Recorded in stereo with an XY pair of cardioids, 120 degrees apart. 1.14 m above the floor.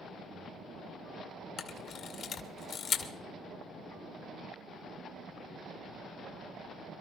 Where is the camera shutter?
55° left, 2 m.